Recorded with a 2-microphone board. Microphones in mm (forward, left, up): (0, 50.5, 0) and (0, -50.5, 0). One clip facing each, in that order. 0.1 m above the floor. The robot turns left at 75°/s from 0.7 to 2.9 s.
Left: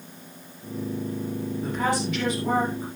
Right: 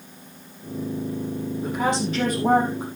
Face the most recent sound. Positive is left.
turn(degrees=-95)